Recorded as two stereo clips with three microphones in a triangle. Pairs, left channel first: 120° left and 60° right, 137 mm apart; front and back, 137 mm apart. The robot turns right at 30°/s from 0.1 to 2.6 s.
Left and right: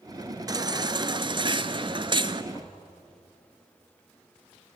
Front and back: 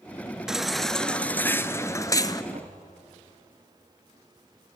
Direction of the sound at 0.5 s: 95° right.